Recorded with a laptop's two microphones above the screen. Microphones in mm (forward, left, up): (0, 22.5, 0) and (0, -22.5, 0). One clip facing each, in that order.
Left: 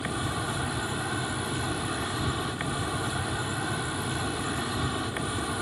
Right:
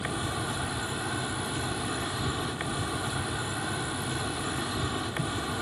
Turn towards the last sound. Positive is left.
turn(degrees=5)  # may be behind; listen again after turning